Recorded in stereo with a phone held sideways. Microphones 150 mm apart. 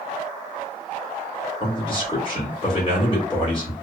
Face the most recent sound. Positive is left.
turn(degrees=35)  # may be behind; listen again after turning